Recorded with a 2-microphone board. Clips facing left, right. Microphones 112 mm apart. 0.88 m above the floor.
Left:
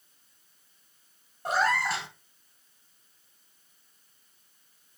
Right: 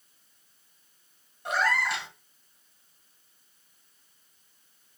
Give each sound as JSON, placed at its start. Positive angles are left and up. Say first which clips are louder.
{"t": 1.4, "sound": "a cat meowing", "louder": "left 1 dB", "side_deg": 35, "distance_m": 1.5}